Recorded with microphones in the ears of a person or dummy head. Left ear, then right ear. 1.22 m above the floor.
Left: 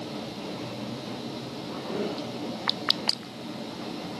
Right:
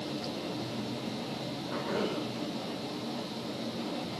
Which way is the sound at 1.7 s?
60° right (ahead or behind).